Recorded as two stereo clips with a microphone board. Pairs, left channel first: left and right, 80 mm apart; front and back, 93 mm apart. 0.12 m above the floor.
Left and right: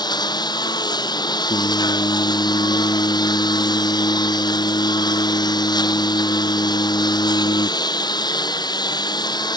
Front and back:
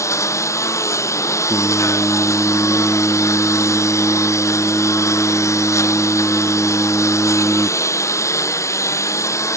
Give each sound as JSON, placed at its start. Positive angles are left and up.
{"t": 0.0, "sound": "a lawn mower", "azimuth_deg": 60}
{"t": 1.5, "sound": "singing", "azimuth_deg": 105}